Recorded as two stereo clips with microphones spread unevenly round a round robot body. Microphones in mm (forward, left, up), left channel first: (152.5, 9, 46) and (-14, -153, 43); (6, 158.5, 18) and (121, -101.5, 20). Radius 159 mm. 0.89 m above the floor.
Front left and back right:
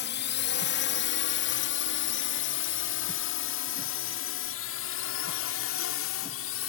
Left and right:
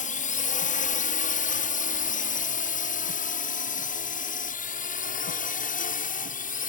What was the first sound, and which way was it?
A drone, 60° left.